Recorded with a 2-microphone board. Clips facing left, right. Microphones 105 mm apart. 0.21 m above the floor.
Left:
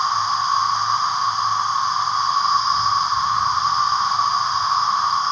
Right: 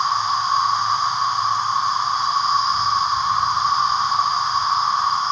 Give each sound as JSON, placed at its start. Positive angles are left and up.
{"t": 0.0, "sound": "an insect", "side_deg": 0, "distance_m": 3.5}